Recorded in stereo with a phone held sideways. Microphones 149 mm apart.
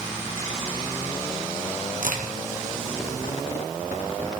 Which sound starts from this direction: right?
A crack, at 2.0 s.